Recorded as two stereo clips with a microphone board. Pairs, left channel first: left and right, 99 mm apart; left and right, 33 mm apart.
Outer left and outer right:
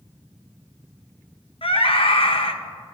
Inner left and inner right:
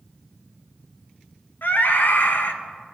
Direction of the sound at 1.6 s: 65° left (ahead or behind).